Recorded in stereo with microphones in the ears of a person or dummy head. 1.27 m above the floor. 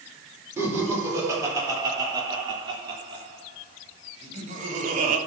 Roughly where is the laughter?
Centre.